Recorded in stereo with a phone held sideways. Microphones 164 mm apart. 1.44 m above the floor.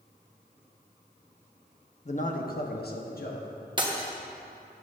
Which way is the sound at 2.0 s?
45° left (ahead or behind).